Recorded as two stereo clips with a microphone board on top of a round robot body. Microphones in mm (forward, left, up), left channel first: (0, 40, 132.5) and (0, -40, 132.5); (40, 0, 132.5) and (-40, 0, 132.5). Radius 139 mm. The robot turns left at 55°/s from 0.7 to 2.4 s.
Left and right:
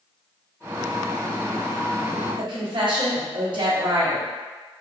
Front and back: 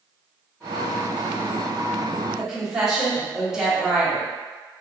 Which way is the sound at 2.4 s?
95° right.